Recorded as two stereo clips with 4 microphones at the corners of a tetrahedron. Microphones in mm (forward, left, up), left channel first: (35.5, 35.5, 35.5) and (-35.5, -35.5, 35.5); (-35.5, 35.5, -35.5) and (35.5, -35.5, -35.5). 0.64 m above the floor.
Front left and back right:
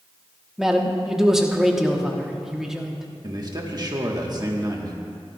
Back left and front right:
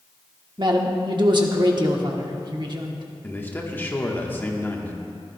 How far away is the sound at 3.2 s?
About 1.3 m.